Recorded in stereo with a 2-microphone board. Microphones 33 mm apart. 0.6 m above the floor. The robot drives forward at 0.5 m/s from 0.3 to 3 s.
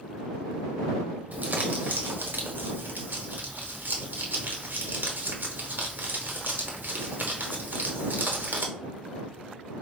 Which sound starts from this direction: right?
Crumpling, at 1.3 s.